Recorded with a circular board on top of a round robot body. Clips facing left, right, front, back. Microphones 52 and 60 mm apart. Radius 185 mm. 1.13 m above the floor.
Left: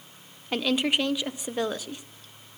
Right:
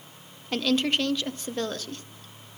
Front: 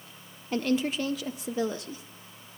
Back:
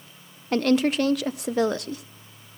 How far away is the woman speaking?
About 0.6 m.